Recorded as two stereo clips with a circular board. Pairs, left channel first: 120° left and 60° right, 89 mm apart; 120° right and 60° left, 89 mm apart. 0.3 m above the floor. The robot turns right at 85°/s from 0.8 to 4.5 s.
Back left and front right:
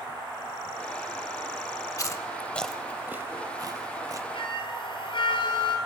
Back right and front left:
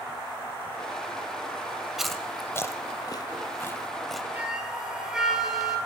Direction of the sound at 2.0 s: 145° left.